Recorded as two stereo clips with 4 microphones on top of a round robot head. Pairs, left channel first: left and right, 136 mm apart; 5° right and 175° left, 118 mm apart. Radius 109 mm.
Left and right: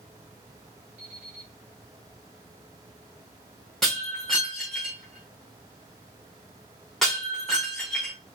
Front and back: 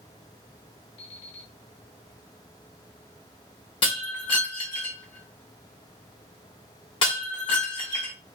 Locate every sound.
1.0 s an alarm clock: 10° right, 1.0 m
3.8 s breaking glass: 5° left, 1.1 m